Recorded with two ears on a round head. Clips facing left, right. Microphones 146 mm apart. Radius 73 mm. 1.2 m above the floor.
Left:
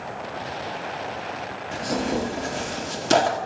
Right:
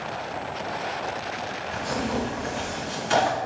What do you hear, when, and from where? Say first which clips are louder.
1.7 s tearing paper: left 3 dB; 45° left (ahead or behind), 1.2 m